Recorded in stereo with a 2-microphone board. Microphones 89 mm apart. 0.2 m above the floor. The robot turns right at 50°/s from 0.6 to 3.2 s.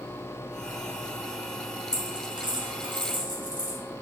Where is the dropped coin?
45° right (ahead or behind), 1.3 m; by 3.8 s 60° right (ahead or behind), 1.3 m.